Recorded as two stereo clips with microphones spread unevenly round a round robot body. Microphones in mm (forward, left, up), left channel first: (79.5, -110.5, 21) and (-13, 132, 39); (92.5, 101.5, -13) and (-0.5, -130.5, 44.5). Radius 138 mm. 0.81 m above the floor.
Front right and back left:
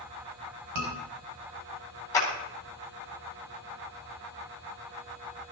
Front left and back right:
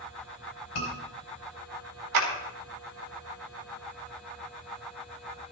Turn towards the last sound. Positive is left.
turn(degrees=-150)